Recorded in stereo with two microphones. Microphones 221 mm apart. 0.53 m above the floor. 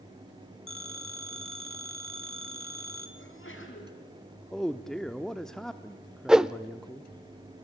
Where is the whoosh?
5° right (ahead or behind), 0.6 m.